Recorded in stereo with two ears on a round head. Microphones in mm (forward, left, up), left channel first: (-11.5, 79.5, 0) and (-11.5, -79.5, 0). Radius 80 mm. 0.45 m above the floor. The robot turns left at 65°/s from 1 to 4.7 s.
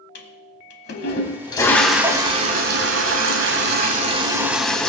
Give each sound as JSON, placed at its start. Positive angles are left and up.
{"t": 0.1, "sound": "a toilet flushing", "azimuth_deg": 55, "distance_m": 1.2}